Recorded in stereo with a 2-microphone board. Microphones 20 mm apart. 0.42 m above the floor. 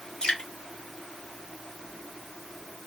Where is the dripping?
65° left (ahead or behind), 1.3 m.